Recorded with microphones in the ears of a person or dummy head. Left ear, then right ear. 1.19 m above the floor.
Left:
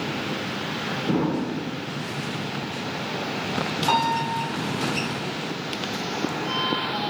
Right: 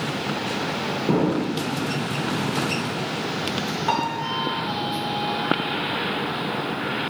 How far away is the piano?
About 1.0 m.